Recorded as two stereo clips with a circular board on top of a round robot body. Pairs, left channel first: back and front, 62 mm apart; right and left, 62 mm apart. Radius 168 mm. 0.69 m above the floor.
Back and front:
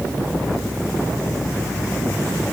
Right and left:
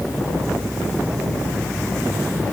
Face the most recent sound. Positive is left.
No sound to turn to.